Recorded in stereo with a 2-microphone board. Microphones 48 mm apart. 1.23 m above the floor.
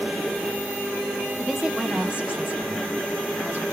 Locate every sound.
1.4 s a woman speaking: 5° left (ahead or behind), 0.6 m; by 3.6 s 40° right (ahead or behind), 2.0 m